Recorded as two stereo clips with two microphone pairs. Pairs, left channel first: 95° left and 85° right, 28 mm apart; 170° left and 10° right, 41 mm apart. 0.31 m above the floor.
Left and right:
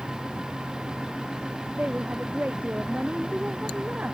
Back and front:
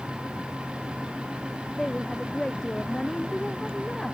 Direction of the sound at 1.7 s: 110° right.